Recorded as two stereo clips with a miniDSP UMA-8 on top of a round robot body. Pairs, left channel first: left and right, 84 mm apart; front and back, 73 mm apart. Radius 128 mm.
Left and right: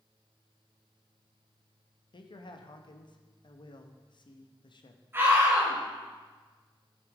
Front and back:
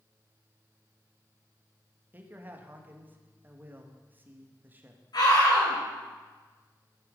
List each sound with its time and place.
2.1 s a man speaking: 115° left, 1.7 m
5.1 s a scream: 25° right, 6 m